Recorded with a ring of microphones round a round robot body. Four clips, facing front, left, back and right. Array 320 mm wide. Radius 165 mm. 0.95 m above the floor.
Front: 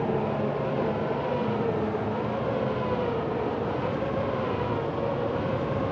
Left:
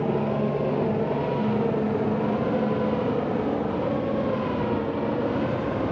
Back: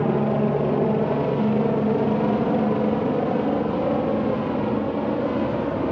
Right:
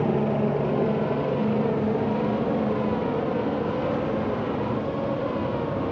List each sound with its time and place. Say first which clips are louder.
0.0 s a helicopter: right 1 dB, back 6 dB; 170° right; by 5.9 s 170° left